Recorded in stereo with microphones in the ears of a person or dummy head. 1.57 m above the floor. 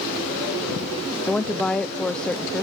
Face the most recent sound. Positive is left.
turn(degrees=5)  # may be behind; listen again after turning